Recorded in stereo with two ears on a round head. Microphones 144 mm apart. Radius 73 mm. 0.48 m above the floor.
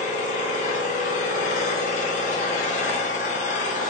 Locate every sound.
0.0 s an engine running: 45° left (ahead or behind), 0.7 m